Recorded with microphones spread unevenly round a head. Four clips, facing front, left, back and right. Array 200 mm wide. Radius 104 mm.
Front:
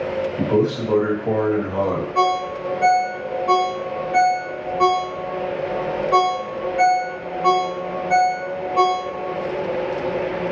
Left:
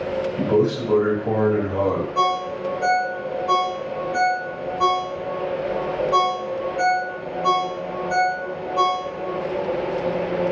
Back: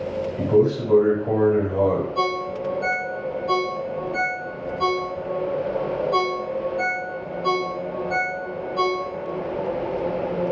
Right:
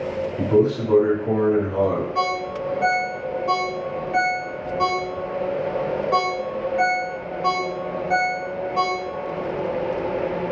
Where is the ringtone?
40° right, 0.7 m.